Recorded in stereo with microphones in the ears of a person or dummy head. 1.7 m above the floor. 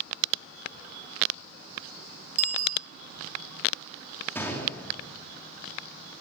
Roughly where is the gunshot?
Centre.